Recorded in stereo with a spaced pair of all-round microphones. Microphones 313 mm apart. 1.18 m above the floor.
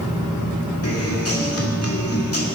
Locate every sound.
0.8 s a guitar: 50° left (ahead or behind), 2 m